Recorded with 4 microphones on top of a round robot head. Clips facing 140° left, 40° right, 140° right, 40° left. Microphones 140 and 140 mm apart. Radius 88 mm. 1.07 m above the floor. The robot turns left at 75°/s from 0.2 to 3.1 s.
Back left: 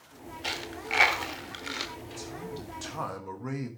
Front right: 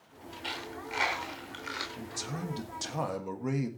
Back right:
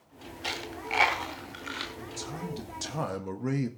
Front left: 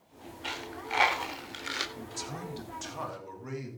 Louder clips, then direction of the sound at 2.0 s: Front right 1 dB, back right 2 dB; 25° right.